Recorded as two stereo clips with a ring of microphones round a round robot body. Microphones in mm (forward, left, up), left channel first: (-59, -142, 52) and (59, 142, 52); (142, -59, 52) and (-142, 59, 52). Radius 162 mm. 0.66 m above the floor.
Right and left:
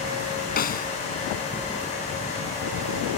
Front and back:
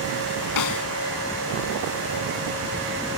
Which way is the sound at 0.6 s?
50° right.